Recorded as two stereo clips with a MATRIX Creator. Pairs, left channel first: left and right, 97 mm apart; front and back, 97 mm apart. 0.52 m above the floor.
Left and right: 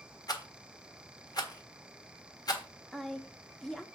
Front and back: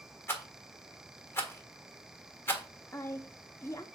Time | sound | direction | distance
0.3 | a rattle | 60° left | 1.5 m
2.9 | a woman speaking | 10° left | 0.8 m